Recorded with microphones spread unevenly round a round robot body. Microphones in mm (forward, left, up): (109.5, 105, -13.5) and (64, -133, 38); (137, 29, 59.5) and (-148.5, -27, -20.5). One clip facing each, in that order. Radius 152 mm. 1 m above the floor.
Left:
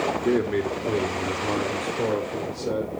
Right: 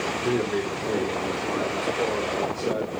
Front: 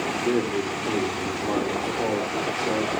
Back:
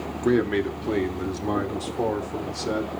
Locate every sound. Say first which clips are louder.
0.2 s a man speaking: left 2 dB, back 4 dB; 145° left, 1.6 m